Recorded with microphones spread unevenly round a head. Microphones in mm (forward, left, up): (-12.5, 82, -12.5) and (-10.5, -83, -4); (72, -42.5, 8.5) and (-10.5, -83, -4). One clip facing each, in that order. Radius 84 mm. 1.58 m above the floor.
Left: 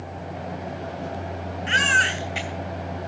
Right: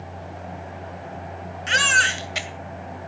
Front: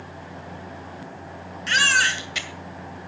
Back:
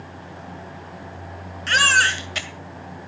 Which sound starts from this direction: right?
A baby crying, at 1.7 s.